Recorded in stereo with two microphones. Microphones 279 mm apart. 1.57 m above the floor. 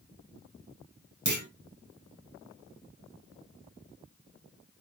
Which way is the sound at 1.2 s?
75° right (ahead or behind).